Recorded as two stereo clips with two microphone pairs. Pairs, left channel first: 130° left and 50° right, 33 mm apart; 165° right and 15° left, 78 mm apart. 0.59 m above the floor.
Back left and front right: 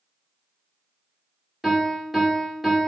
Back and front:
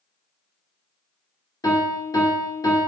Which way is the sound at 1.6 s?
130° right.